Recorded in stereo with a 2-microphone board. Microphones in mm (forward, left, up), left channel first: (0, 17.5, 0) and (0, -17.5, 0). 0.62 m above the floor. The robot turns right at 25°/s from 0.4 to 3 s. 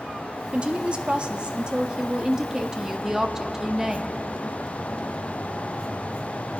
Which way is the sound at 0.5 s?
95° right.